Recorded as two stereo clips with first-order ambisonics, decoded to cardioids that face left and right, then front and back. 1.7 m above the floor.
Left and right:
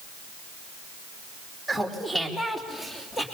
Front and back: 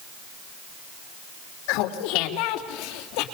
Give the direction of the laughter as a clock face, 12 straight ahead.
12 o'clock.